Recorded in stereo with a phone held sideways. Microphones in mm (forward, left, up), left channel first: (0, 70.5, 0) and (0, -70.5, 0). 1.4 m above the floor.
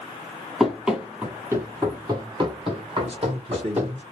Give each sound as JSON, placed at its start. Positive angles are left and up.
{"t": 0.6, "sound": "running footsteps", "side_deg": 0, "distance_m": 1.5}
{"t": 3.0, "sound": "a man speaking", "side_deg": -45, "distance_m": 1.1}